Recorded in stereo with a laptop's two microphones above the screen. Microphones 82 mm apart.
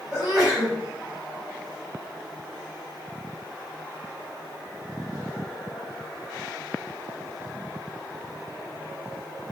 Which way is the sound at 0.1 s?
5° right (ahead or behind).